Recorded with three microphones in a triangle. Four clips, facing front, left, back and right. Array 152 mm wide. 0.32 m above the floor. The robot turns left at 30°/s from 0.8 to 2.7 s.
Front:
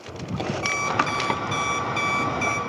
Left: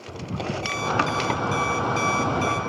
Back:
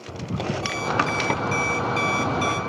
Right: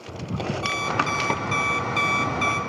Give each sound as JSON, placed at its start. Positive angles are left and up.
{"t": 0.6, "sound": "an alarm clock", "azimuth_deg": -50, "distance_m": 1.2}